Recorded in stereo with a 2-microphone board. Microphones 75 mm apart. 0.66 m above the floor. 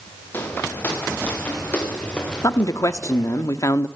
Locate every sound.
0.3 s footsteps: 30° left (ahead or behind), 6 m; by 3.4 s 5° left (ahead or behind), 7 m
2.4 s a man speaking: 50° left (ahead or behind), 0.9 m